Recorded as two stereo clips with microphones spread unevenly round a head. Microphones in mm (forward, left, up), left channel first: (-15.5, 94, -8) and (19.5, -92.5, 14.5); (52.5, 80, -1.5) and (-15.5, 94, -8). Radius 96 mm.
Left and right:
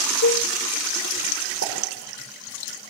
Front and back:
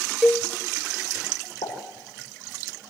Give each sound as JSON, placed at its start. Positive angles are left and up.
{"t": 0.2, "sound": "a cowbell", "azimuth_deg": 70, "distance_m": 0.7}
{"t": 1.6, "sound": "a pop", "azimuth_deg": -50, "distance_m": 5.0}